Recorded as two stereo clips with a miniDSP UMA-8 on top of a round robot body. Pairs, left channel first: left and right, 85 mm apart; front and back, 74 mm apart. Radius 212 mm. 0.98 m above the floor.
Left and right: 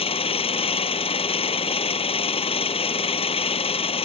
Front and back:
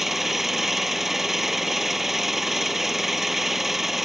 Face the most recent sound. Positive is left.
turn(degrees=90)